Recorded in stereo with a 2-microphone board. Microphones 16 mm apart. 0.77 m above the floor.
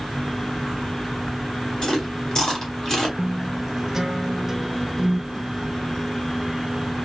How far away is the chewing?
About 2.5 m.